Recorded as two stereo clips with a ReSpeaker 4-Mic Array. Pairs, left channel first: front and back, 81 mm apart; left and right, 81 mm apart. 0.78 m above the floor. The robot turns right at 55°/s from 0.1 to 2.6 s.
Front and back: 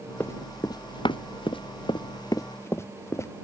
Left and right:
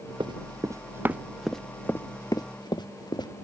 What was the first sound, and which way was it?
Running footsteps, 65° right.